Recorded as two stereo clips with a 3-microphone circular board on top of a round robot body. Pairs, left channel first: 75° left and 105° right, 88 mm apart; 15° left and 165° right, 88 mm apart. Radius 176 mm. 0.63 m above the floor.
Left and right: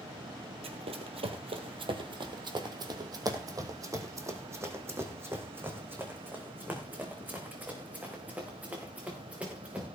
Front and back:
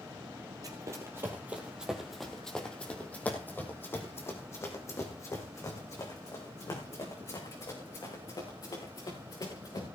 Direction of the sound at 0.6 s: 110° right.